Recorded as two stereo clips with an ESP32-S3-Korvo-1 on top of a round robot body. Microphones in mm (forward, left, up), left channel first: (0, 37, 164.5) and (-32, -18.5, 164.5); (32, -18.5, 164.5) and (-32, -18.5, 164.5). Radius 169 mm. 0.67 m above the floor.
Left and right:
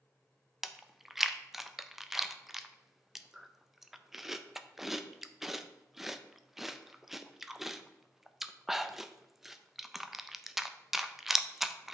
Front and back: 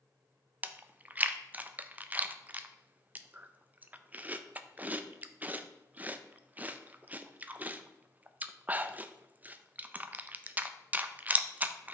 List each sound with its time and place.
0.6 s chewing: 160° left, 0.6 m